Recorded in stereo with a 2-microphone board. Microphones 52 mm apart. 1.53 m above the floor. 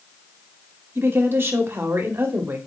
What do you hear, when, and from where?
0.9 s a woman speaking: 45° right (ahead or behind), 0.7 m